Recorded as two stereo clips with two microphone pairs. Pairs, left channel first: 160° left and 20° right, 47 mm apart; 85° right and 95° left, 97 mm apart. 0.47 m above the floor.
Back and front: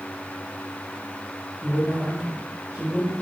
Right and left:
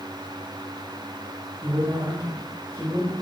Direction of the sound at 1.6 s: 65° left.